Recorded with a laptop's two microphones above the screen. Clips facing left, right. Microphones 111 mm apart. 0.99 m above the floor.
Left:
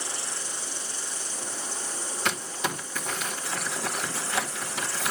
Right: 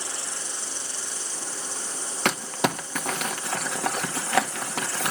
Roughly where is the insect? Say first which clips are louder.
Even; right.